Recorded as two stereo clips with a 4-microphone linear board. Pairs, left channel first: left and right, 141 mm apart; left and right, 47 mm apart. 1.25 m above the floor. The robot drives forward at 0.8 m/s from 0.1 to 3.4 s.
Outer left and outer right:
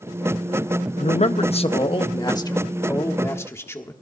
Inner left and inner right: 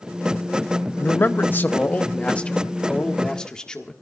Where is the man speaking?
50° left (ahead or behind), 0.8 m; by 3.9 s 20° left (ahead or behind), 2.0 m.